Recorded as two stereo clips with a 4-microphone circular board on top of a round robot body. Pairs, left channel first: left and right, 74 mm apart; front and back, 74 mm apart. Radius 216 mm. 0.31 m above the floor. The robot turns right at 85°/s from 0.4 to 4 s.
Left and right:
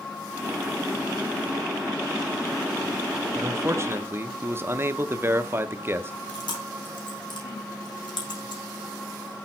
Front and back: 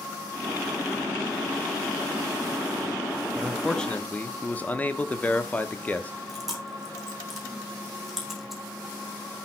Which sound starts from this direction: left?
Chewing, at 6.3 s.